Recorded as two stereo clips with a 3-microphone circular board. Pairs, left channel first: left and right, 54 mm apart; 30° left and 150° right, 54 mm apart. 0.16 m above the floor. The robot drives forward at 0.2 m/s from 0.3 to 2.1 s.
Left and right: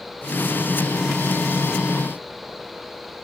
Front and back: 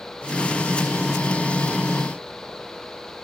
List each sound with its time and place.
Only background noise.